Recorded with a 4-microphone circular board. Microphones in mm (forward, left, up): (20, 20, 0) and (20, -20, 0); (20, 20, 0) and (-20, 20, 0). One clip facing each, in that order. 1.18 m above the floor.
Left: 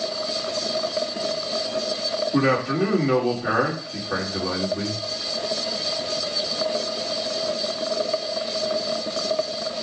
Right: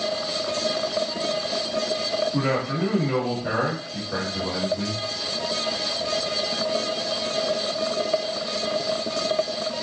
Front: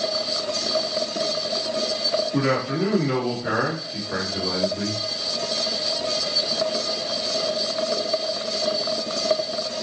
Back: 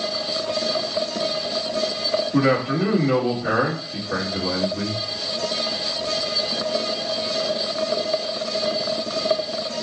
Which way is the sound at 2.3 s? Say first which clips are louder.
Left 4 dB, back 6 dB; 110° left.